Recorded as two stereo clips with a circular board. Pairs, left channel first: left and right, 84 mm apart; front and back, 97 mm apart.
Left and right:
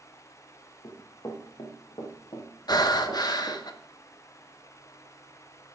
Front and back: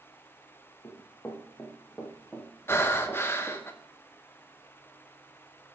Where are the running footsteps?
60° left, 3 m; by 3.6 s 95° left, 3 m.